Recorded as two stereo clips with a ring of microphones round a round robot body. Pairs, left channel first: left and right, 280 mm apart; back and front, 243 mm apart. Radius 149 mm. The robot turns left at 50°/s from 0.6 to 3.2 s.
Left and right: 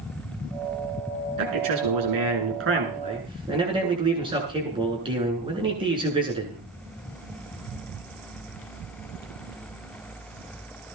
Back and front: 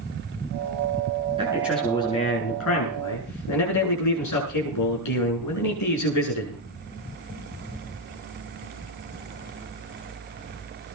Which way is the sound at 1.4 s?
75° right.